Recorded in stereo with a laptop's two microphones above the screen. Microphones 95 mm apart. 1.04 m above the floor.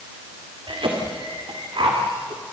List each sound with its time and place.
0.7 s a cough: 65° right (ahead or behind), 2.5 m